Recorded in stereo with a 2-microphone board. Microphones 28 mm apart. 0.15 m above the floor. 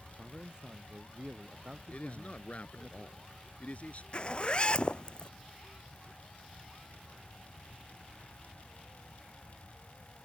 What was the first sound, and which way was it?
A man speaking, 35° right (ahead or behind).